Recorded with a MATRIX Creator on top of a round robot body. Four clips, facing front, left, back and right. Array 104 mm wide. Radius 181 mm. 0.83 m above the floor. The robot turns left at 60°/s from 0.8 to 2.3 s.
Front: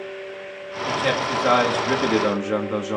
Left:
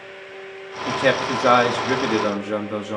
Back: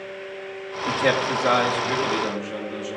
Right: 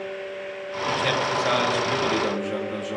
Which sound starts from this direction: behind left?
A man speaking, at 0.9 s.